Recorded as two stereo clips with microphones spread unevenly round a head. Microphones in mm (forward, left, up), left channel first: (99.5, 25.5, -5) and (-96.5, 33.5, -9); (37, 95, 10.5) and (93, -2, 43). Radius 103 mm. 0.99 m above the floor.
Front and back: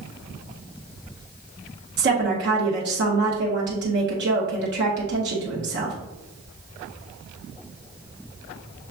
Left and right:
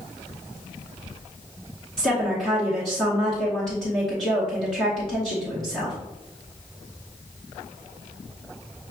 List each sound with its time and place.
2.0 s a woman speaking: 165° right, 0.9 m